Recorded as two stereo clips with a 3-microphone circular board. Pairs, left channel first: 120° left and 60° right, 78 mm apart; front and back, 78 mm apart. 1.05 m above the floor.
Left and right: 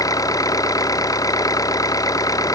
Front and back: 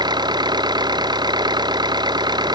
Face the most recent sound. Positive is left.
turn(degrees=160)